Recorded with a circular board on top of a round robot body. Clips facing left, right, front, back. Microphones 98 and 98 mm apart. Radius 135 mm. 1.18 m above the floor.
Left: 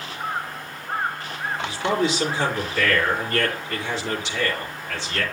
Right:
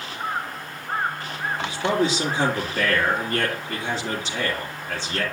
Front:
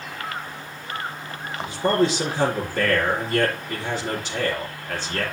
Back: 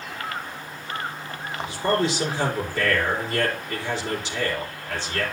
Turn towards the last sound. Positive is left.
turn(degrees=-40)